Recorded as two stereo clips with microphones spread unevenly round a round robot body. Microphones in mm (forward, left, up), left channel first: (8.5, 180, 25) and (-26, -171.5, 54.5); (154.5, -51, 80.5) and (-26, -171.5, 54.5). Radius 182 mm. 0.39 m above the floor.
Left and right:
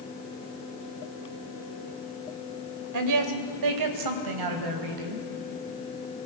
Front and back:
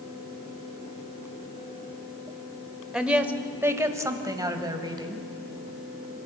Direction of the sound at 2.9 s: 65° right.